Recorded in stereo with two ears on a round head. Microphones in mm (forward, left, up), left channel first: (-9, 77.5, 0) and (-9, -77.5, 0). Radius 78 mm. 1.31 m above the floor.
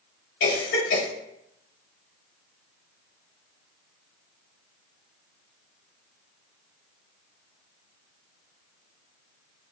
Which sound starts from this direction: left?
A cough, at 0.4 s.